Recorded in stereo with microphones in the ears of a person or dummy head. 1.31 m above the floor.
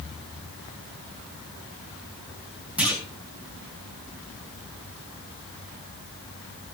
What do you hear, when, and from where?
2.8 s a clunk: 5° right (ahead or behind), 2 m